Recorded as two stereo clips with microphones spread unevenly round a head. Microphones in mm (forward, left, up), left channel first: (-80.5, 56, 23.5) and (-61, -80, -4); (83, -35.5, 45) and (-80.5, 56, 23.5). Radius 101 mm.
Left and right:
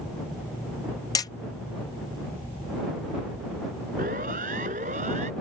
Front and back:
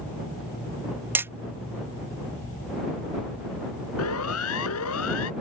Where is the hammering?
70° left.